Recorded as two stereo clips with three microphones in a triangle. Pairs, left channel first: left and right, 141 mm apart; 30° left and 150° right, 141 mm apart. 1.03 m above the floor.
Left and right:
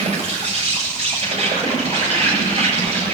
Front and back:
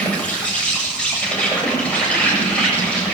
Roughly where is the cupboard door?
No cupboard door in this recording.